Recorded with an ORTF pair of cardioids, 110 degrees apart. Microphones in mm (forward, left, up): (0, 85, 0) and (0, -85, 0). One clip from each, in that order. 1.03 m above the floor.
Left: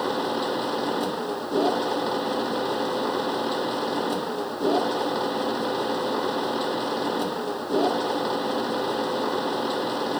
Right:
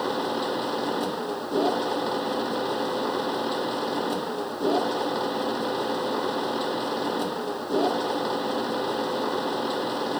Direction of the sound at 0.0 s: Straight ahead.